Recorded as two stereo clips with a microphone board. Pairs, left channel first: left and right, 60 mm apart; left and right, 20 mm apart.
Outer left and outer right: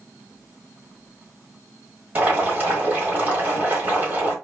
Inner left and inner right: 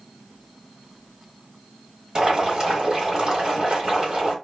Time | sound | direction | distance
2.1 | boiling | 30° right (ahead or behind) | 1.6 m